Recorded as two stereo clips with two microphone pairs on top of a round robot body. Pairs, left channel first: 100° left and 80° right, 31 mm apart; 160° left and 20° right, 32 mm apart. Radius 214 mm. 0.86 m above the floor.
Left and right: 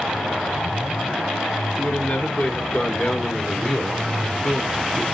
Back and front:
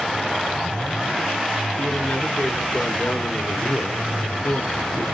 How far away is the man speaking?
About 4 m.